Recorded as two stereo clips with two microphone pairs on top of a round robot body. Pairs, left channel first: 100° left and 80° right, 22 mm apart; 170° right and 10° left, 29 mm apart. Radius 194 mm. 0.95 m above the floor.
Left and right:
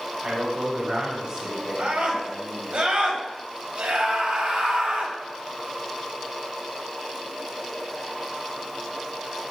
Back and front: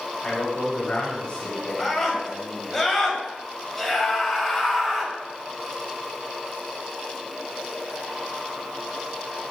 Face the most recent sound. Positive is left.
turn(degrees=-85)